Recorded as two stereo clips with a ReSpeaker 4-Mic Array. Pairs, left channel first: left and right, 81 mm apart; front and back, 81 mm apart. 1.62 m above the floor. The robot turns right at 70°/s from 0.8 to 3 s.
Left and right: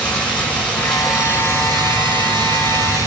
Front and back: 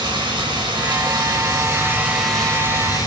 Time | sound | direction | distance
0.0 | running water | 165° left | 6 m